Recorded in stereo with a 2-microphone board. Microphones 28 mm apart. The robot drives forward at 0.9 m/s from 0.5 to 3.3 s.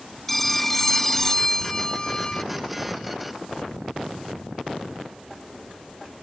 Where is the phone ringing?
10° left (ahead or behind); by 2.4 s 35° left (ahead or behind).